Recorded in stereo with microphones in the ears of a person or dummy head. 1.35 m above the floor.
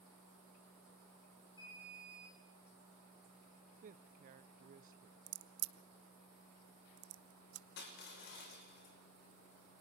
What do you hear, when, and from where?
1.6 s an alarm: 25° left (ahead or behind), 8 m
3.8 s a man speaking: 40° right (ahead or behind), 0.7 m
5.3 s a crack: 60° right (ahead or behind), 1.2 m
7.8 s crushing: 60° left (ahead or behind), 6 m